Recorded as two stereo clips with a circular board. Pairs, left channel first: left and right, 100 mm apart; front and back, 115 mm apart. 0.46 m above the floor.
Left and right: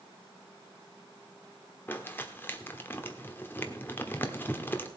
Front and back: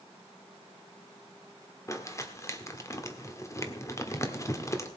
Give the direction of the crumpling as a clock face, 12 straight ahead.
11 o'clock.